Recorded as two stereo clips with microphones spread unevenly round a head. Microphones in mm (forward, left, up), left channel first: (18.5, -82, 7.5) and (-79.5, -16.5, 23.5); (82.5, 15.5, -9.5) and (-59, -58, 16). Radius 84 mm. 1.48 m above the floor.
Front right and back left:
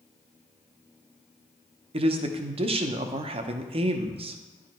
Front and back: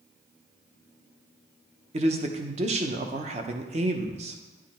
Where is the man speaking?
165° left, 0.8 m.